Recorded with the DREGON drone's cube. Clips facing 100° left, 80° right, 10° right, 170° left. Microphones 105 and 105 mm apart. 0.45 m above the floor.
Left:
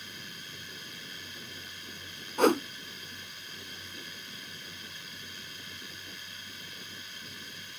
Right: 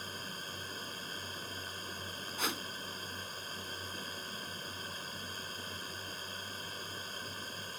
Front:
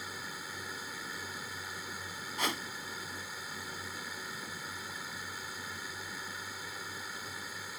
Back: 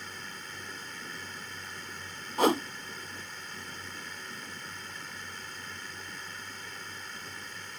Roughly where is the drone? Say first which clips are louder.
Right 3 dB, front 1 dB; right.